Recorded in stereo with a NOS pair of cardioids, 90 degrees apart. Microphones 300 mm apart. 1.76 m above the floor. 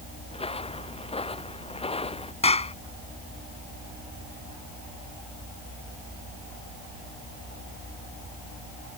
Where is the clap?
20° left.